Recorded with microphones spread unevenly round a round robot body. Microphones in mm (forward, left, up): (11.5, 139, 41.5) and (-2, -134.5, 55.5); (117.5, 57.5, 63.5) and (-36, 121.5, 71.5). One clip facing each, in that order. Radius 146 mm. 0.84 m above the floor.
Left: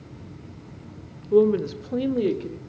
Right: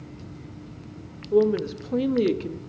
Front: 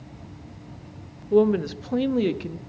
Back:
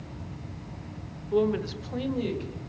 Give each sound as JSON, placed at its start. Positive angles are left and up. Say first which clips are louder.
{"t": 1.3, "sound": "a woman speaking", "louder": "left 2 dB, front 6 dB", "azimuth_deg": 20, "distance_m": 0.9}